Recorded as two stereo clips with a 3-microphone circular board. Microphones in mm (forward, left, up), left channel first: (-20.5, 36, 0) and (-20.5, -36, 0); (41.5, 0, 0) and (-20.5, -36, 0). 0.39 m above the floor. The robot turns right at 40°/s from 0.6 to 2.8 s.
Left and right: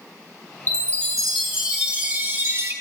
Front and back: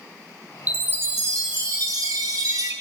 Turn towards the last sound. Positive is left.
turn(degrees=-120)